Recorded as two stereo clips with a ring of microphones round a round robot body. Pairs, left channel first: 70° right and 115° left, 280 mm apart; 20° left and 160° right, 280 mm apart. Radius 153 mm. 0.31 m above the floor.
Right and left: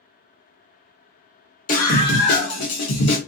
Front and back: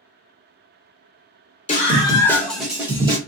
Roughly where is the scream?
Ahead right.